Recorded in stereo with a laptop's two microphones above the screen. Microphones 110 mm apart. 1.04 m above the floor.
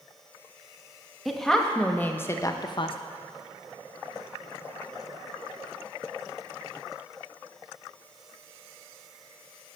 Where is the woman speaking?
Centre (ahead or behind), 1.2 m; by 3.0 s 55° left (ahead or behind), 0.6 m.